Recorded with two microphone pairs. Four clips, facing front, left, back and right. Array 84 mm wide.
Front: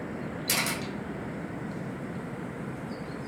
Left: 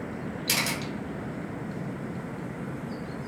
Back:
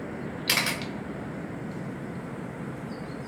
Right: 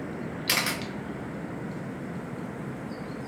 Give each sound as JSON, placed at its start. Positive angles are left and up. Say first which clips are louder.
{"t": 0.5, "sound": "a camera shutter", "louder": "right 1 dB, back 2 dB", "azimuth_deg": -150, "distance_m": 0.6}